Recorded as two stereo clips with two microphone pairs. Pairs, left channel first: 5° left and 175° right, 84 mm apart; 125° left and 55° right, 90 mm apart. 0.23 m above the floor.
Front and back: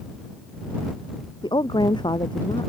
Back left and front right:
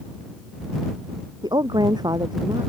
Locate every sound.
1.4 s a woman speaking: 15° right